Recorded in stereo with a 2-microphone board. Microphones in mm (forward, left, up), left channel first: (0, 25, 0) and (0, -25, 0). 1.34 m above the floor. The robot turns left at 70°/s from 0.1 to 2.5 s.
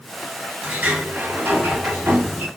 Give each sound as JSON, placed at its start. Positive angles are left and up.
{"t": 0.6, "sound": "a sliding door", "azimuth_deg": -25, "distance_m": 2.5}